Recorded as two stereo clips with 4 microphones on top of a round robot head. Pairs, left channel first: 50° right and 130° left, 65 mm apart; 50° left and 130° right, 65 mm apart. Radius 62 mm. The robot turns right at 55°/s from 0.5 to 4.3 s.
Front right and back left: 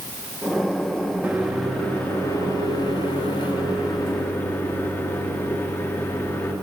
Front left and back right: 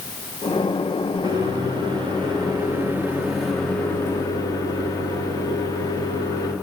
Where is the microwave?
160° right, 1.6 m; by 6.5 s 10° left, 1.6 m.